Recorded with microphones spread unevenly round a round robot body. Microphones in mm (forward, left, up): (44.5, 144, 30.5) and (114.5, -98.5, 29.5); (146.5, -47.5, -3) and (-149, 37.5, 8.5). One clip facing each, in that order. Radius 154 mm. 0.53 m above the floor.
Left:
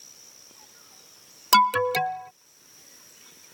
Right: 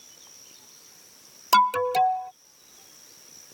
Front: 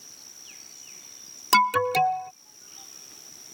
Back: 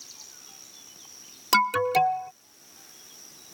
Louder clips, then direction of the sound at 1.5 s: Even, even; 60° left.